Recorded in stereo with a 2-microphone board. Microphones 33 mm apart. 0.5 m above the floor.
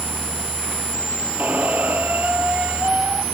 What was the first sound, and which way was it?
A squeak, 55° right (ahead or behind).